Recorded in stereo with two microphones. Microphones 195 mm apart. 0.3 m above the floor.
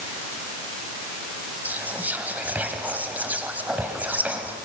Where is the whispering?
10° right (ahead or behind), 1.4 m.